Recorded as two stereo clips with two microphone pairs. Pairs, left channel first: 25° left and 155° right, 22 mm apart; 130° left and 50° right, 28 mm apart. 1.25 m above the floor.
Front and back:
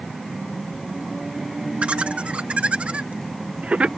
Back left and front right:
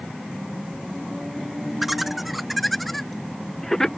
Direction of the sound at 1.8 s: 135° right.